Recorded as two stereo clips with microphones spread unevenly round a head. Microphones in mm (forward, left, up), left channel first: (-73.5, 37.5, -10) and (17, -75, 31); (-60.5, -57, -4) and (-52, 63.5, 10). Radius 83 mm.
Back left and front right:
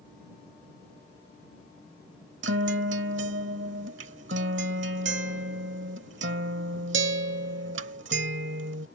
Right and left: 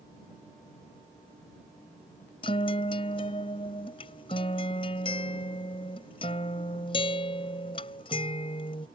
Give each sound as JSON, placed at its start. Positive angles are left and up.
{"t": 2.4, "sound": "a guitar", "azimuth_deg": -35}